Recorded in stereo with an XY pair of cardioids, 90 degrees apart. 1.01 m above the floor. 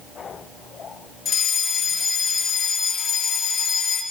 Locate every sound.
1.2 s a fire alarm: 65° left, 6.5 m